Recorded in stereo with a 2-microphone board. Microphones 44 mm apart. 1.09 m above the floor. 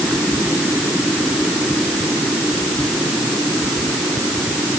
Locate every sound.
Only background noise.